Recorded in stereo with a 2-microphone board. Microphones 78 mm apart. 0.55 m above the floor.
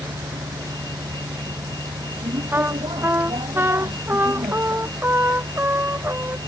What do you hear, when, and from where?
0.0 s a vehicle: 75° right (ahead or behind)
2.5 s a trumpet: 30° right (ahead or behind)